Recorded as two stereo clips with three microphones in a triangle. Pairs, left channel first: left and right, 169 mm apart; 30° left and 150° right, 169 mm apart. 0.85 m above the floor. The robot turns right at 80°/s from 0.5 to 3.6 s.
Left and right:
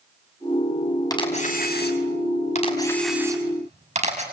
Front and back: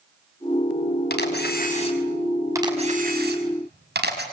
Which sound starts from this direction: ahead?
A camera shutter, at 1.1 s.